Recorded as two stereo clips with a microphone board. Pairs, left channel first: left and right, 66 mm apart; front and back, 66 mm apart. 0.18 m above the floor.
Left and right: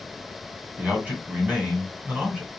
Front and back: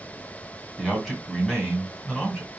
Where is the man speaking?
80° right, 1.2 m.